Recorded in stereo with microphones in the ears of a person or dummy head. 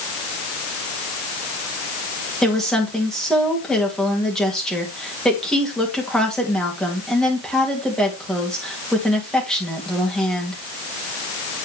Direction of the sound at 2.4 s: Centre (ahead or behind).